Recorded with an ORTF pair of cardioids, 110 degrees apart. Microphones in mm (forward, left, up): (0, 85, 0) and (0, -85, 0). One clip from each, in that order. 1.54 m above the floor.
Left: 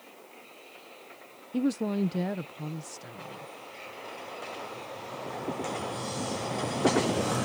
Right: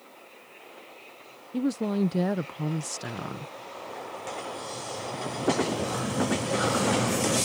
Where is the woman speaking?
Straight ahead; by 3.5 s 70° right.